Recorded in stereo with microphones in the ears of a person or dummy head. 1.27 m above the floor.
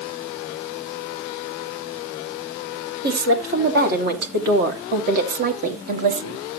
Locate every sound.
3.0 s a woman speaking: 60° right (ahead or behind), 3.5 m; by 6.4 s 40° right (ahead or behind), 2.0 m